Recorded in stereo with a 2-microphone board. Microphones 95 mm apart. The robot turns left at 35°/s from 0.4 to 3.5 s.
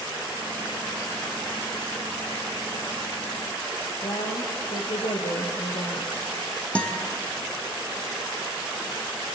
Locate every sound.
4.0 s a woman speaking: 70° left (ahead or behind), 3.5 m
6.8 s a guitar: 15° left (ahead or behind), 2.5 m